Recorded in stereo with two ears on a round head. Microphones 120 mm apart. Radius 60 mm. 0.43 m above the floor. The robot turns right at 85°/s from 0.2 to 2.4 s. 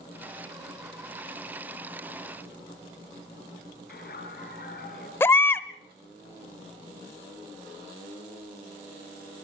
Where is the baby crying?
20° left (ahead or behind), 0.8 m.